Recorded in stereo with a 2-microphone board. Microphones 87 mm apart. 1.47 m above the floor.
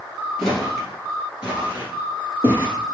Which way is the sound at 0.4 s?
Centre (ahead or behind).